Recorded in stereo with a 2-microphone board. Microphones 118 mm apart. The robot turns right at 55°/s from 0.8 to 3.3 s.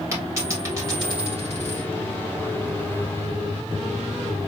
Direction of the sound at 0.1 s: 25° right (ahead or behind).